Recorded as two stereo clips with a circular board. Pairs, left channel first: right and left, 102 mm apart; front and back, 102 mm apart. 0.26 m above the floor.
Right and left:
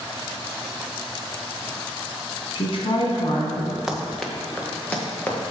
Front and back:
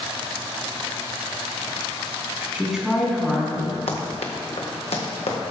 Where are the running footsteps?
5° left, 1.5 m; by 5.4 s 15° right, 3 m.